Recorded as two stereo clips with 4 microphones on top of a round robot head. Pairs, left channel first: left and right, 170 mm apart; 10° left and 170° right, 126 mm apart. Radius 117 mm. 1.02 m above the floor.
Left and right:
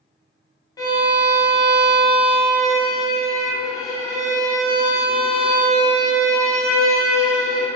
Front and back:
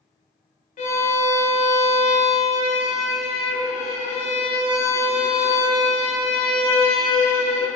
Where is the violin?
20° left, 0.7 m.